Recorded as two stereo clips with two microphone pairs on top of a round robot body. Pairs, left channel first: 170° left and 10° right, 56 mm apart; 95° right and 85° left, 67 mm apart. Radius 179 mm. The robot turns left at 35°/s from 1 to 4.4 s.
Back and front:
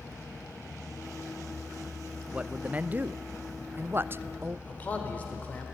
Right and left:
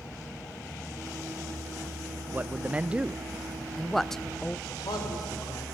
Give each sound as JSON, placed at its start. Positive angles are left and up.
{"t": 2.3, "sound": "a man speaking", "azimuth_deg": 55, "distance_m": 0.6}
{"t": 4.7, "sound": "a man speaking", "azimuth_deg": -125, "distance_m": 3.0}